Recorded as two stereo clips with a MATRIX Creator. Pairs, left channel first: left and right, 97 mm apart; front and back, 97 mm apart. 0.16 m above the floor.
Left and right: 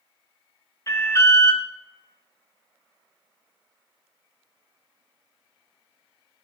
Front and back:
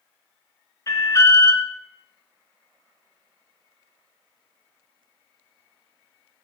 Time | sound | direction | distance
0.9 | an alarm | 45° left | 1.7 m